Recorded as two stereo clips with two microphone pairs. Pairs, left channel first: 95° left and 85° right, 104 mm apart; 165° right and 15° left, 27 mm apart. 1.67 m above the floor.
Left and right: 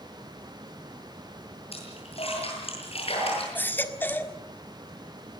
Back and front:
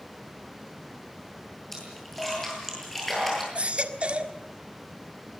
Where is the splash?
115° left, 9.5 m.